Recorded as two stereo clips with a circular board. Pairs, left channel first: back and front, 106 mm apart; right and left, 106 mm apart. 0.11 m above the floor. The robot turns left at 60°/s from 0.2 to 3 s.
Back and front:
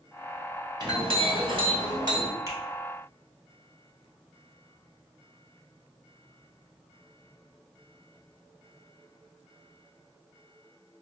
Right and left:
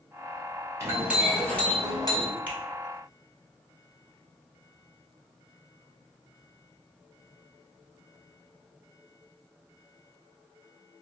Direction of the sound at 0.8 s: 30° left.